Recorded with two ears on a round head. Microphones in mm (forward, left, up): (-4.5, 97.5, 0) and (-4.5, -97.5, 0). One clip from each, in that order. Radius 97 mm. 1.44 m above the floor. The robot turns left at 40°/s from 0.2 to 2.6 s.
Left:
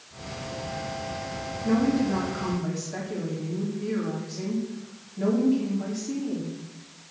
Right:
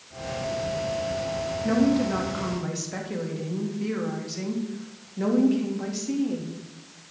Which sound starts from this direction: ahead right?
A woman speaking, at 1.6 s.